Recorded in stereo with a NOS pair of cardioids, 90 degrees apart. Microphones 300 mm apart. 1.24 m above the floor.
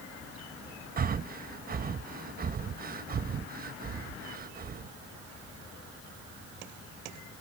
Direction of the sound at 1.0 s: 30° right.